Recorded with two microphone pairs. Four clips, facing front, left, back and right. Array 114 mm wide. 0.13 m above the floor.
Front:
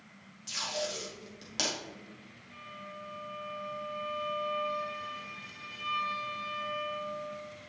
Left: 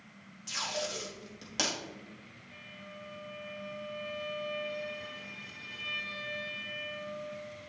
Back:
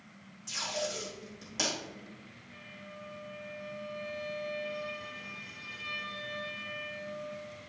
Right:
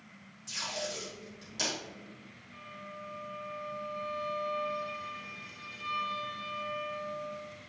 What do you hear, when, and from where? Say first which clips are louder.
0.5 s tape being pulled: left 2 dB, even; 60° left, 3.5 m
2.5 s a violin: right 4 dB, front 4 dB; 45° left, 4 m